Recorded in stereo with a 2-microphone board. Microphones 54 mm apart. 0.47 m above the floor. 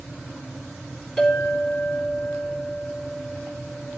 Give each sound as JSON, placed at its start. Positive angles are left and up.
{"t": 1.2, "sound": "a clink", "side_deg": 10, "distance_m": 3.5}